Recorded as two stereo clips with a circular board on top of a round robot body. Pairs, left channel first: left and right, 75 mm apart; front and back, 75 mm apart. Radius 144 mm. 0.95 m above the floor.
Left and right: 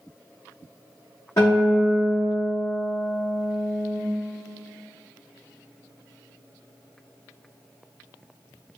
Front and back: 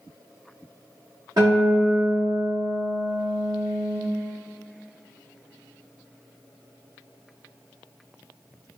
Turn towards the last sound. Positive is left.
turn(degrees=140)